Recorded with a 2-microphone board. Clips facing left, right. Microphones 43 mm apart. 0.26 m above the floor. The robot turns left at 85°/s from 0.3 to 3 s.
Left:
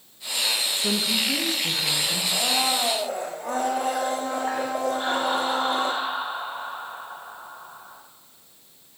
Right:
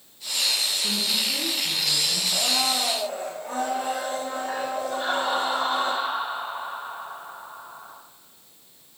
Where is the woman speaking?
155° left, 3.5 m; by 2.2 s 30° left, 3.5 m.